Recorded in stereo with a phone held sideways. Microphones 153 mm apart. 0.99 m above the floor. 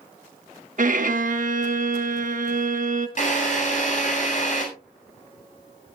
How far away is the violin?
About 1.2 m.